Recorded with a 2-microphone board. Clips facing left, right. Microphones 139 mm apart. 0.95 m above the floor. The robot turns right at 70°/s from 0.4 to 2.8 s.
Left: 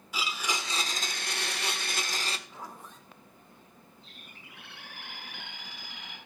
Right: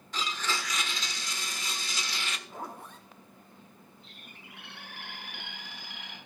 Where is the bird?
65° right (ahead or behind), 6.5 m.